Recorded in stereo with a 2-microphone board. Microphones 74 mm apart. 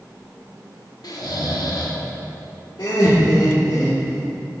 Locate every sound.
1.0 s snoring: 60° left (ahead or behind), 1.1 m
2.8 s laughter: 75° left (ahead or behind), 1.6 m